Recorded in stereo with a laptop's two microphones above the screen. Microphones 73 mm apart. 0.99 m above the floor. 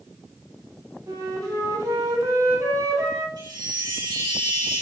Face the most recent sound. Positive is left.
turn(degrees=-85)